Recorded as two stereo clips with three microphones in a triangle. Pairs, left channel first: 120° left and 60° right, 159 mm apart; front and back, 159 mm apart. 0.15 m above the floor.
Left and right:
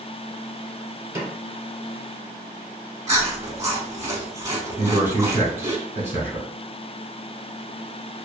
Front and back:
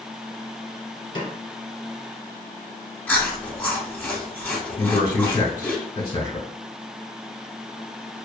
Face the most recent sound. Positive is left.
turn(degrees=-5)